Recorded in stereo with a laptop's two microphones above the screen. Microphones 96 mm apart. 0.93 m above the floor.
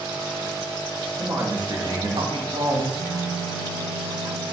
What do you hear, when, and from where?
1.2 s a man speaking: 30° right (ahead or behind), 0.9 m; by 2.8 s 65° right (ahead or behind), 0.9 m
2.9 s a phone buzzing: 30° left (ahead or behind), 0.9 m